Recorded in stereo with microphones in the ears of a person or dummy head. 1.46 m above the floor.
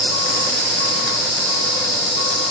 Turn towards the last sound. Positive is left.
turn(degrees=30)  # may be behind; listen again after turning